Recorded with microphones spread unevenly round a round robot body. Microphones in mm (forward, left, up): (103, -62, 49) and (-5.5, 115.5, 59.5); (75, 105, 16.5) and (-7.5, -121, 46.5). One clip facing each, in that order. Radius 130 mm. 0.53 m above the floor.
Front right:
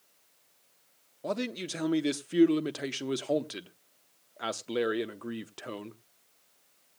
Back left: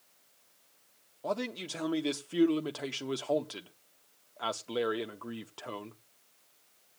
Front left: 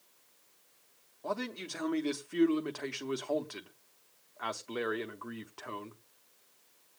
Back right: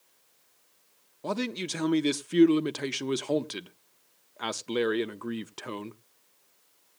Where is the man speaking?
115° right, 0.8 m.